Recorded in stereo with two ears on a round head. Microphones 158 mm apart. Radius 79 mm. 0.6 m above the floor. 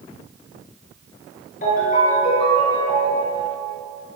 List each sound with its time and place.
1.6 s a ringtone: 50° left (ahead or behind), 6.5 m